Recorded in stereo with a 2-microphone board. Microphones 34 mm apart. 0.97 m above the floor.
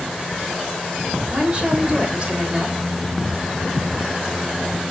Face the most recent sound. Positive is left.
turn(degrees=-35)  # may be behind; listen again after turning